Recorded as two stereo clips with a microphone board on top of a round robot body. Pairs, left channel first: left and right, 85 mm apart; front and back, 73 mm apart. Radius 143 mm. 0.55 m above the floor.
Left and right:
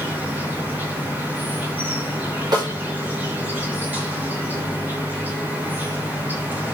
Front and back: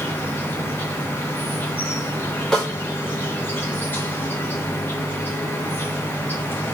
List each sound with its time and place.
0.0 s an insect: 35° right, 1.5 m
2.5 s a snare drum: 80° right, 2.0 m